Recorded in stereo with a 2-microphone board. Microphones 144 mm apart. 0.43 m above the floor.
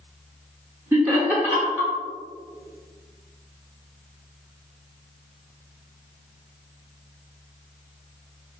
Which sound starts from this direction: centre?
Laughter, at 0.9 s.